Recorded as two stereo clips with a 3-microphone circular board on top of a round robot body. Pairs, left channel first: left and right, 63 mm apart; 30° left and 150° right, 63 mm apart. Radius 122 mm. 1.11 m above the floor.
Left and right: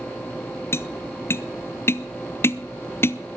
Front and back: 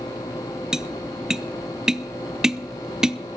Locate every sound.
0.7 s tapping: 130° left, 0.7 m